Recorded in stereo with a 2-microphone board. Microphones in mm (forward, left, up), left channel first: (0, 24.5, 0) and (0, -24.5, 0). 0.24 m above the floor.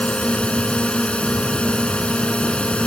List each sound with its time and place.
0.0 s a drone: 25° left (ahead or behind)